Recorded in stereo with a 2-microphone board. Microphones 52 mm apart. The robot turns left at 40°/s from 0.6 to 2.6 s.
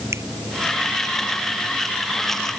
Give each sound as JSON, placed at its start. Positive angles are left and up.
{"t": 0.1, "sound": "a finger snap", "side_deg": -60}